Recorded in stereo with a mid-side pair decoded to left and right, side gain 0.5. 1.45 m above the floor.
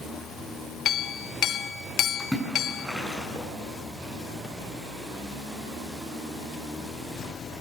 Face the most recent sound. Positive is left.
turn(degrees=5)